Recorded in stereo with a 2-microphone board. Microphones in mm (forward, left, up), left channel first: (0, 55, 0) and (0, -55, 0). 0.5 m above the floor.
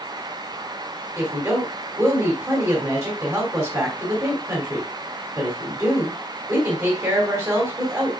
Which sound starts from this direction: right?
A woman speaking, at 1.2 s.